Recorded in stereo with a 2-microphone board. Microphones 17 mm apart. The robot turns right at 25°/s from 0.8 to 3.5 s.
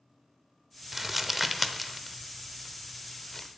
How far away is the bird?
I don't hear a bird.